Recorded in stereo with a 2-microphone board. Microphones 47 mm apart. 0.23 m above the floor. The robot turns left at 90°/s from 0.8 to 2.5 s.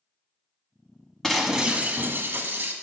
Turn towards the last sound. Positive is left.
turn(degrees=-100)